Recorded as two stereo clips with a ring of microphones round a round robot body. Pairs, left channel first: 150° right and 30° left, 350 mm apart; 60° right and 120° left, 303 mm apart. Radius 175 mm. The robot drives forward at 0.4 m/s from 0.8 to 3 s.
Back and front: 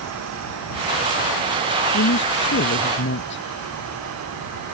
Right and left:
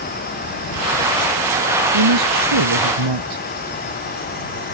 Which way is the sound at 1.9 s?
150° left.